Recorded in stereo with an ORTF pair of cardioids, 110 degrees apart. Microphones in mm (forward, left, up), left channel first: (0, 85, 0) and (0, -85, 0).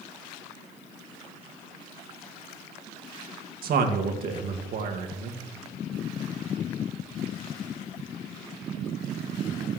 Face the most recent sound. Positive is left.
turn(degrees=-65)